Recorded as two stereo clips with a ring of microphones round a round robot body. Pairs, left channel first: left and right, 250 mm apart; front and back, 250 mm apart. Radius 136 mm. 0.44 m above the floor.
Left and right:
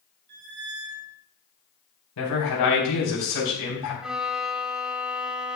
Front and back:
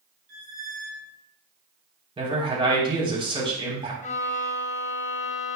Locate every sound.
0.3 s a squeak: 120° right, 2 m
2.2 s a man speaking: 110° left, 3.5 m
4.0 s a violin: 5° right, 0.7 m